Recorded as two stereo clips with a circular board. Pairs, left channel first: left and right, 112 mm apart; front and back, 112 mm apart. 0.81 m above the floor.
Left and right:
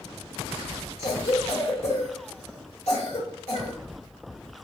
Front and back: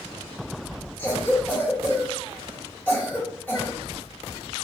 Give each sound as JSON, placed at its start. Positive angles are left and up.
{"t": 1.0, "sound": "a cough", "azimuth_deg": 75, "distance_m": 1.6}